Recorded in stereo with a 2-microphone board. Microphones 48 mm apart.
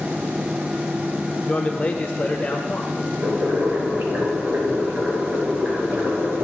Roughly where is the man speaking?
Left.